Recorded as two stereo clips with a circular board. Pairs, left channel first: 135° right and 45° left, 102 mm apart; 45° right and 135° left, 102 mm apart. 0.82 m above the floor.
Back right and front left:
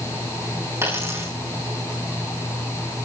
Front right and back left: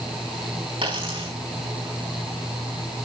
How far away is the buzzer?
I don't hear a buzzer.